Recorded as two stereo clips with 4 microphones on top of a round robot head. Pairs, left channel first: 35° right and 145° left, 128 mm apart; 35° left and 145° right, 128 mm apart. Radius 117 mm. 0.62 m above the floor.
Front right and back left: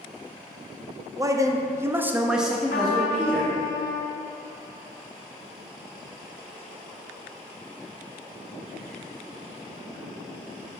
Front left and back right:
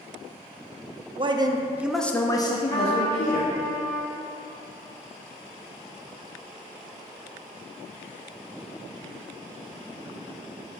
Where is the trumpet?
25° right, 1.1 m.